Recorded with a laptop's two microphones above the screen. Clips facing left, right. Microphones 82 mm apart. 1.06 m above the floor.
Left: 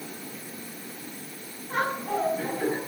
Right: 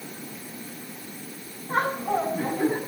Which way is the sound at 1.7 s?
30° right (ahead or behind).